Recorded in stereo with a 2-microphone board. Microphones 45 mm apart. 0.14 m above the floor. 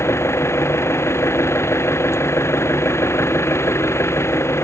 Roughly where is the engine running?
Left.